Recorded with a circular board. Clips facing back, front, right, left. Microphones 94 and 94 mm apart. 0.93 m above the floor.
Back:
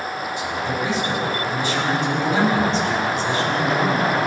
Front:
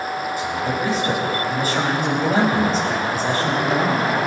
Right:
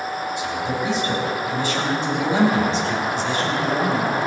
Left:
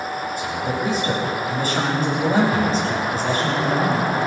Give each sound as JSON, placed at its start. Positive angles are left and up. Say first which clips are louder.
{"t": 0.4, "sound": "a man speaking", "louder": "even, left 1 dB", "azimuth_deg": 45, "distance_m": 4.5}